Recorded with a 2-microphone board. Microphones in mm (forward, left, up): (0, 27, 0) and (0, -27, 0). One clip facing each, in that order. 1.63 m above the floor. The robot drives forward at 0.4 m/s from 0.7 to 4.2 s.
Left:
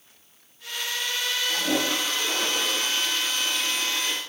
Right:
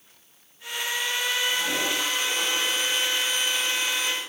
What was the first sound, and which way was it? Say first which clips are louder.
A toilet flushing: left 1 dB; 35° left (ahead or behind).